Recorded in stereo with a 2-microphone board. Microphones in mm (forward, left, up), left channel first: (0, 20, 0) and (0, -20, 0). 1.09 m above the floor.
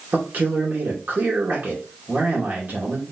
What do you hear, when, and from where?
0.1 s a man speaking: 50° right (ahead or behind), 2.5 m